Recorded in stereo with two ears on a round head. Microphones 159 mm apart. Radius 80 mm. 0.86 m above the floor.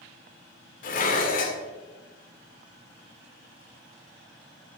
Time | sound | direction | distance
0.8 | dishes clattering | 50° left (ahead or behind) | 2 m